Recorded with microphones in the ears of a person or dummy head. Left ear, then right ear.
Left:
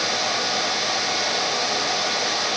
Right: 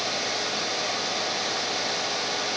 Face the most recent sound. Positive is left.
No sound to turn to.